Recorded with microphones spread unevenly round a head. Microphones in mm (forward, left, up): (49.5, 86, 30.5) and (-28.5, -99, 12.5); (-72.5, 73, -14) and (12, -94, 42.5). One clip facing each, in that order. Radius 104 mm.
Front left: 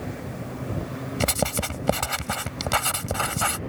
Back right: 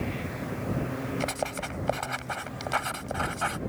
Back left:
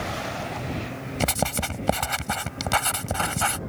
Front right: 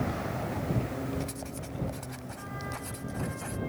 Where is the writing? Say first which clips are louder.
Front left 5 dB, back left 10 dB; 100° left.